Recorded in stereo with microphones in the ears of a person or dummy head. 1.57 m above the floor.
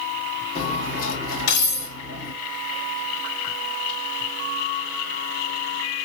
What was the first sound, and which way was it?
Cutlery clinking, 75° left (ahead or behind).